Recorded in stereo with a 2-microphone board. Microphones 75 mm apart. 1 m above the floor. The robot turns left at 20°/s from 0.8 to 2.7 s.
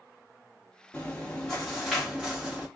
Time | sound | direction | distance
0.9 | chewing | 15° left | 1.6 m